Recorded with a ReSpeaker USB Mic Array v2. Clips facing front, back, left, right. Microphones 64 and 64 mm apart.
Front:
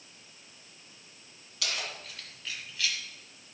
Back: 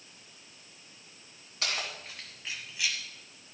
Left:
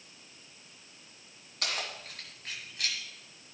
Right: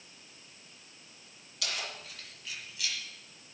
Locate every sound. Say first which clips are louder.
1.6 s keys jangling: back 1 dB, left 2 dB; 130° left, 2.0 m; by 3.0 s 105° left, 1.4 m